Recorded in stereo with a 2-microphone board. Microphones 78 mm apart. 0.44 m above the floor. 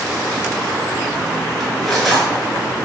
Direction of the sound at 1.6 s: Centre (ahead or behind).